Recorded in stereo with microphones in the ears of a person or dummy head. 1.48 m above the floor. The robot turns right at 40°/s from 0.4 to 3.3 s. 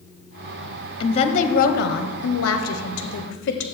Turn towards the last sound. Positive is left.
turn(degrees=120)